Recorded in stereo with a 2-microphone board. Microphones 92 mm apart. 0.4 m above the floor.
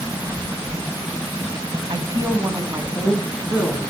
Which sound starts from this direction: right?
A woman speaking, at 1.9 s.